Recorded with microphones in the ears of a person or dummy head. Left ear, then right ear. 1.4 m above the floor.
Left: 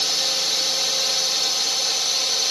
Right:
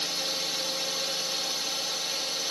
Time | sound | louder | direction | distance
0.0 | a drone | left 8 dB | 30° left (ahead or behind) | ?